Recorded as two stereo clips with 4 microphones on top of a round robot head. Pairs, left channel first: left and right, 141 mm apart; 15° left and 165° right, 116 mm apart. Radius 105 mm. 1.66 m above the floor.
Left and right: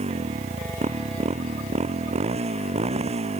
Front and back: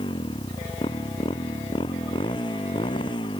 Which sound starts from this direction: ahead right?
A motorcycle, at 0.0 s.